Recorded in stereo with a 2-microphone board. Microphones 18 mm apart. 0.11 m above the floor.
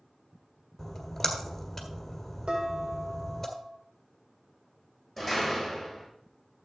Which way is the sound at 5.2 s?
5° right (ahead or behind).